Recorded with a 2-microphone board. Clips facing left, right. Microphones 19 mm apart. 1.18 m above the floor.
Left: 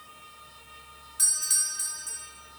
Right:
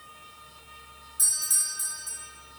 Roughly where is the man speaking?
I don't hear a man speaking.